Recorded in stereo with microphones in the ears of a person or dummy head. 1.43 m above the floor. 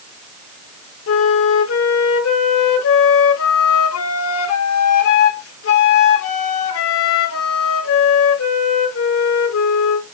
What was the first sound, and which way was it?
A flute, 70° left (ahead or behind).